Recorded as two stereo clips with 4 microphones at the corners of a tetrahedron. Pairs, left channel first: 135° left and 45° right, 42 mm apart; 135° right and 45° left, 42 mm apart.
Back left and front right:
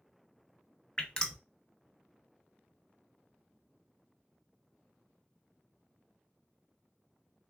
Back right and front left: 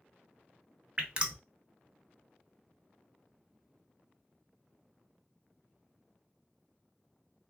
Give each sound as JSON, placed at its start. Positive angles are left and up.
{"t": 1.0, "sound": "dripping", "azimuth_deg": 85, "distance_m": 0.6}